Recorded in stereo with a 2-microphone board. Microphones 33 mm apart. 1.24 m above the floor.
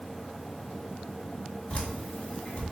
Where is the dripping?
40° left (ahead or behind), 1.4 m.